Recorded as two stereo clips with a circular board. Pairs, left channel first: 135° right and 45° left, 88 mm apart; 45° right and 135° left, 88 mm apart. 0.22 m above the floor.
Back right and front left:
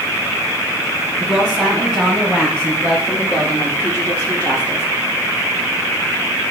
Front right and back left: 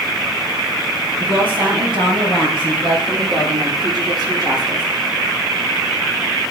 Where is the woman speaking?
135° left, 4 m; by 4.9 s 170° left, 3.5 m.